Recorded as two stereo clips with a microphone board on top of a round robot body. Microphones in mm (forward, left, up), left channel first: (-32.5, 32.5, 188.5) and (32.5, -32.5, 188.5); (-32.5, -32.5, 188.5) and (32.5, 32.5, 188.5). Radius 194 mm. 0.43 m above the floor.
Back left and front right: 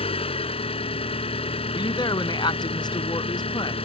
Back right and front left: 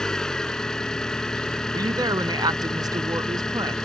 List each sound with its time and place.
0.0 s an engine running: 140° left
1.7 s a woman speaking: 95° left